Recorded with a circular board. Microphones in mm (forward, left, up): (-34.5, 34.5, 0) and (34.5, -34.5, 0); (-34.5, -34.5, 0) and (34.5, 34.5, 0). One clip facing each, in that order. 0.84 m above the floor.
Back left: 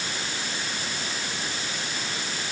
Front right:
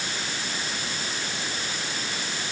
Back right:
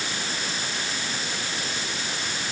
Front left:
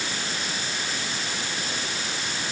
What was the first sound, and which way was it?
Only background noise.